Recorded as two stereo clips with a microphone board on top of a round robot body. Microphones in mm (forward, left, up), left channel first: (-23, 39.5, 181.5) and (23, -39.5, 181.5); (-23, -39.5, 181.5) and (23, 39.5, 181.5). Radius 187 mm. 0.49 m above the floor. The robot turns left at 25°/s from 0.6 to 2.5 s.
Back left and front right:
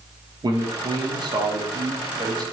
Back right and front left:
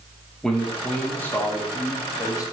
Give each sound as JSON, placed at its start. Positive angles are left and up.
{"t": 0.4, "sound": "a man speaking", "azimuth_deg": -35, "distance_m": 0.9}